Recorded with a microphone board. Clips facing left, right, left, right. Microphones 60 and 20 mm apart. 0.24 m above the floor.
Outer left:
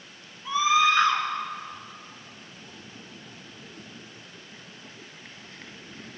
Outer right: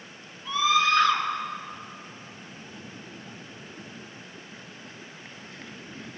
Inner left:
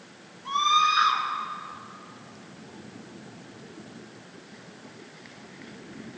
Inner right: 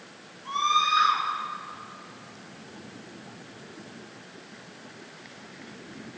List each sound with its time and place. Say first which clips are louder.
0.5 s a scream: outer left 1 dB, inner left 2 dB; 15° left (ahead or behind), 3 m